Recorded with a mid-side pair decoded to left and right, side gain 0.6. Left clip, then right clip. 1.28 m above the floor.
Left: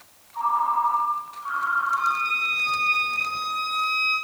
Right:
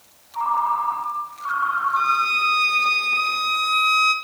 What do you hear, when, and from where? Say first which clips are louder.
0.3 s a ringtone: right 1 dB; 35° right, 3 m
2.0 s a violin: right 4 dB; 50° right, 0.7 m